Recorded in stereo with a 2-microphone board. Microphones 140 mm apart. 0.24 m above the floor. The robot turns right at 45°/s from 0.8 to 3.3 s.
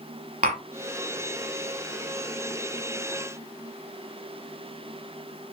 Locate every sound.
0.4 s tapping: 70° right (ahead or behind), 0.6 m